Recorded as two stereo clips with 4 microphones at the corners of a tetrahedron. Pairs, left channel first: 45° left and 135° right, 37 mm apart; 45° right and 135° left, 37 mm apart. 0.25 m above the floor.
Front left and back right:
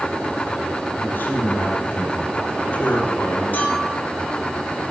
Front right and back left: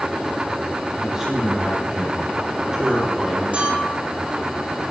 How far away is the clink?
About 8.5 m.